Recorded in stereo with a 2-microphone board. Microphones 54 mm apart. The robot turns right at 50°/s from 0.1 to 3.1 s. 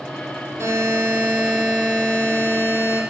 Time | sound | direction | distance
0.6 | a buzzer | 50° right | 6 m